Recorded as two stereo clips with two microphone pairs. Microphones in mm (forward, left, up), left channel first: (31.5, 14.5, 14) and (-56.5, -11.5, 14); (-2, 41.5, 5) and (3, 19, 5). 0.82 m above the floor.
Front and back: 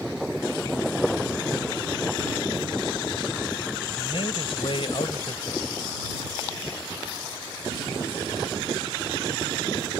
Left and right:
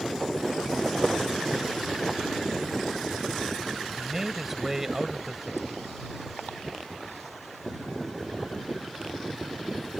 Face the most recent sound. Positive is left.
turn(degrees=-5)